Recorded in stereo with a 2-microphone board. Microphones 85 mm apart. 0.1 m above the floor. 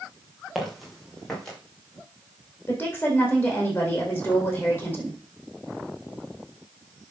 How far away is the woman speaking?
About 4 m.